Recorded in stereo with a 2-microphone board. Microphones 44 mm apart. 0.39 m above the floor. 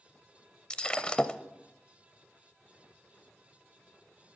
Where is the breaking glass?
20° left (ahead or behind), 0.6 m.